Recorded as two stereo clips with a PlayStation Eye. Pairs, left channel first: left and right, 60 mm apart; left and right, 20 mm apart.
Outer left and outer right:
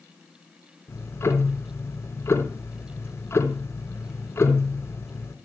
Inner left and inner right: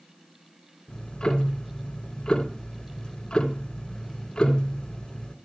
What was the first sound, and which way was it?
Ticking, 40° left (ahead or behind).